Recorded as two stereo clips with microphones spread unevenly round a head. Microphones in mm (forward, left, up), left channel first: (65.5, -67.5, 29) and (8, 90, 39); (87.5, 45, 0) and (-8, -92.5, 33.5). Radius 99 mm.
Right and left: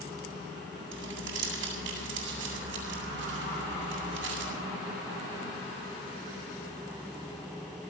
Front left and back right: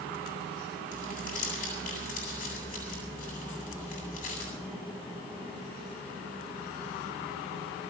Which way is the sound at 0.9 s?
110° left.